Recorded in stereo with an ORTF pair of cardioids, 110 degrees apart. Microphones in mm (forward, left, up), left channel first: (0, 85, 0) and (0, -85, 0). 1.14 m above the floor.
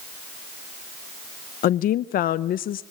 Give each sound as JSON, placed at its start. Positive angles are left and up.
{"t": 1.6, "sound": "a woman speaking", "azimuth_deg": 60, "distance_m": 0.7}